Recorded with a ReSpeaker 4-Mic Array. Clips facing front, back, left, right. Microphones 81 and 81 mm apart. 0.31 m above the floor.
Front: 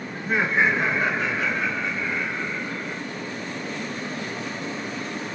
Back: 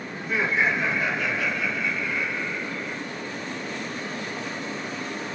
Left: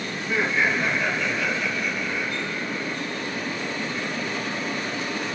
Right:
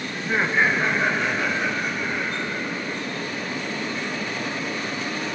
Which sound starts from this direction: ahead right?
Laughter, at 0.1 s.